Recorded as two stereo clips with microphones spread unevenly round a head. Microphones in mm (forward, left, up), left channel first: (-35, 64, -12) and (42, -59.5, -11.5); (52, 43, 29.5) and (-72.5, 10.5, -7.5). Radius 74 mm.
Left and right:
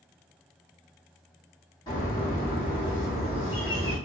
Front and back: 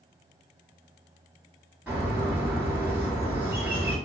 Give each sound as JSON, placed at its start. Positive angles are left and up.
{"t": 1.9, "sound": "a bird", "azimuth_deg": 100, "distance_m": 1.6}